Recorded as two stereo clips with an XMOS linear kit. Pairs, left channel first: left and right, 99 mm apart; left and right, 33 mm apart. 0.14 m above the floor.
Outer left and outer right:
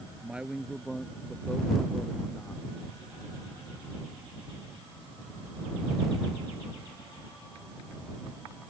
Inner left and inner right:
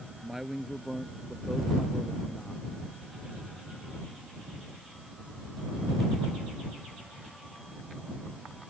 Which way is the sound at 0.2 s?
10° right (ahead or behind).